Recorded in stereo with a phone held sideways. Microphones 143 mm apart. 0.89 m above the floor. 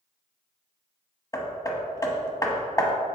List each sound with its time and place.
1.3 s hammering: 25° left (ahead or behind), 0.9 m